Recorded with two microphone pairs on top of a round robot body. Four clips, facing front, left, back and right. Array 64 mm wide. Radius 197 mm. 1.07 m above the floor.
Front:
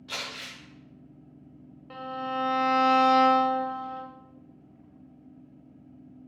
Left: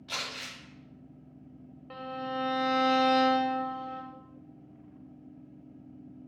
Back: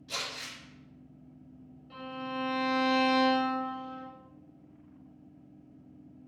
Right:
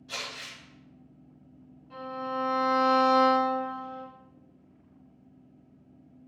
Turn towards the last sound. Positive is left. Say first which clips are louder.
# right 2 dB, front 5 dB
turn(degrees=45)